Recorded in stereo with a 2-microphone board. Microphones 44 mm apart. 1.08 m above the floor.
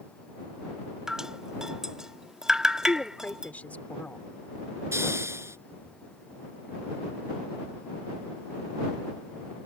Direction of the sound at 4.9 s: 85° right.